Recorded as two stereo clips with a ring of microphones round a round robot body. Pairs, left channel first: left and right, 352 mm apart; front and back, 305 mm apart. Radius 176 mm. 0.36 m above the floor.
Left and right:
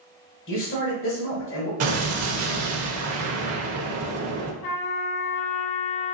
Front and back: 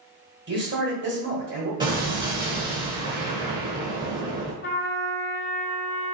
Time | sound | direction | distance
0.5 | a man speaking | 135° left | 1.3 m
1.8 | an explosion | 110° right | 0.7 m
4.6 | a trumpet | 50° left | 1.1 m